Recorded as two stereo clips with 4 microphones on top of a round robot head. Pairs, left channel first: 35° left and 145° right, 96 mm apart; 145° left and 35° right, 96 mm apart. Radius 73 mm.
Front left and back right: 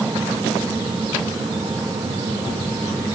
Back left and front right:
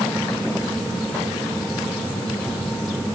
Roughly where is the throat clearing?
I don't hear throat clearing.